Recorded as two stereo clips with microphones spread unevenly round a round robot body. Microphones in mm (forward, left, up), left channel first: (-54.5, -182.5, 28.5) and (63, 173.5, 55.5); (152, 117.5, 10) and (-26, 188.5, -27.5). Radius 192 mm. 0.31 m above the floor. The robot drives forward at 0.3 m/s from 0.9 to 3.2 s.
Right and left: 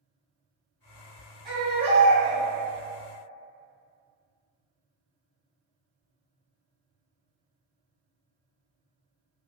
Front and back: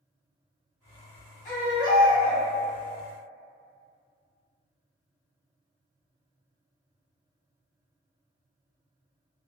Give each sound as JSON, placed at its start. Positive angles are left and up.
{"t": 1.4, "sound": "a baby crying", "azimuth_deg": -5, "distance_m": 1.4}